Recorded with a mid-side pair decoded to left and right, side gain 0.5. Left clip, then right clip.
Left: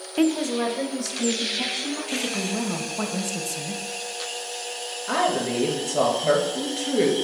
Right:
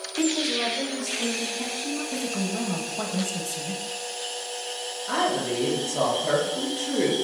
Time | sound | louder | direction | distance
0.2 | a woman speaking | left 2 dB | 30° left | 0.5 m
2.1 | a woman speaking | left 2 dB | 20° left | 0.8 m
5.1 | a woman speaking | left 2 dB | 35° left | 2 m